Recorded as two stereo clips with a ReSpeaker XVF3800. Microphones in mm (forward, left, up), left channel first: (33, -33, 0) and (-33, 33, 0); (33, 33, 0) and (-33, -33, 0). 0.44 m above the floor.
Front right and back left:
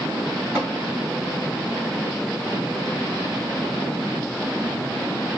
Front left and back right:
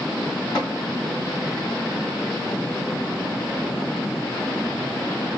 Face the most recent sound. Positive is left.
turn(degrees=80)